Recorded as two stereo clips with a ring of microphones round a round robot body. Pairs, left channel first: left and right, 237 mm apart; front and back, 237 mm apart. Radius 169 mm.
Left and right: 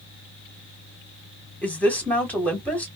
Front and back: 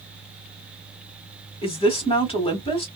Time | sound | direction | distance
1.6 | a woman speaking | 15° left | 1.4 m